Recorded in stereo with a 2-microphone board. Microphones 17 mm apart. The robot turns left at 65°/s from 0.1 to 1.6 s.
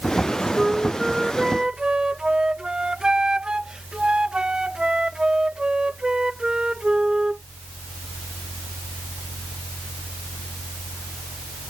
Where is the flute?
10° left; by 7.4 s 60° right.